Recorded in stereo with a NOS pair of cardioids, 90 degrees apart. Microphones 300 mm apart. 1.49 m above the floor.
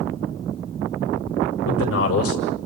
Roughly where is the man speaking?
Ahead left.